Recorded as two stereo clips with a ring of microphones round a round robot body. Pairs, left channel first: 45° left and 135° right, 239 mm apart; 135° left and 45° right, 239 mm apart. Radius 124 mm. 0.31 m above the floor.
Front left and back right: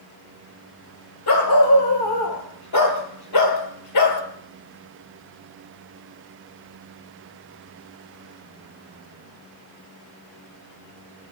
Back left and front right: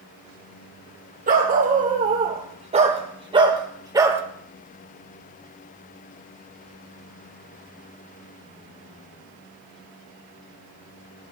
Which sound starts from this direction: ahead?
A dog barking, at 1.3 s.